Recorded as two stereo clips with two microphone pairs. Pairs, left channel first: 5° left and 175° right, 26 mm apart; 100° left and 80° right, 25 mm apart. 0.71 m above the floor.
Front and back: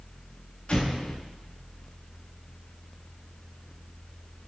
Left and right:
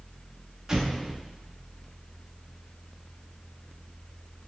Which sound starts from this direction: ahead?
An explosion, at 0.7 s.